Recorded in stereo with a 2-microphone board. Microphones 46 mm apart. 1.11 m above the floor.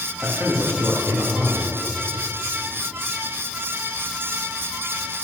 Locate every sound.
0.2 s a man speaking: 55° right (ahead or behind), 2 m